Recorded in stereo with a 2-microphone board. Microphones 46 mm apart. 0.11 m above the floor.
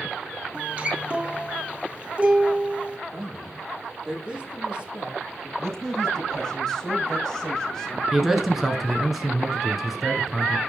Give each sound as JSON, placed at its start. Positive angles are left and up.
{"t": 0.5, "sound": "a guitar", "side_deg": -25, "distance_m": 1.1}
{"t": 3.1, "sound": "a man speaking", "side_deg": -5, "distance_m": 4.5}
{"t": 5.6, "sound": "a man speaking", "side_deg": 5, "distance_m": 4.5}
{"t": 8.1, "sound": "a man speaking", "side_deg": -5, "distance_m": 1.1}